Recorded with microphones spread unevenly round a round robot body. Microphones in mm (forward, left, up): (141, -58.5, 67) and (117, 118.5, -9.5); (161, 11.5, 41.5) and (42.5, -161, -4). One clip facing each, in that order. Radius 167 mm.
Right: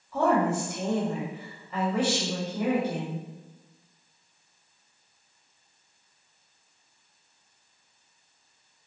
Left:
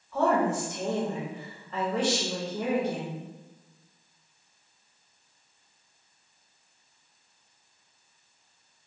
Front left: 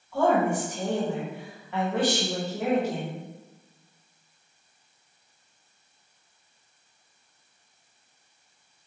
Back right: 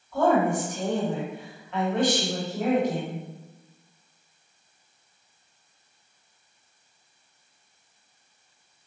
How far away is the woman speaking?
About 1.2 m.